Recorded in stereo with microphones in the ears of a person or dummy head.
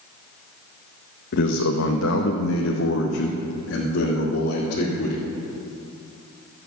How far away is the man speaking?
About 1.4 m.